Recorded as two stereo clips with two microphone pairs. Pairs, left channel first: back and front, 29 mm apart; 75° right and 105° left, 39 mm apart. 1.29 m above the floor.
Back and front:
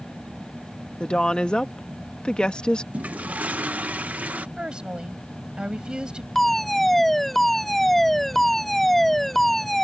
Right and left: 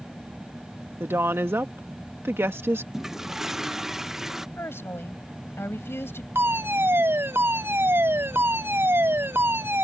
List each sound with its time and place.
1.0 s a woman speaking: 120° left
2.9 s a toilet flushing: 25° left
4.6 s a woman speaking: 60° right
6.3 s a fire alarm: 95° left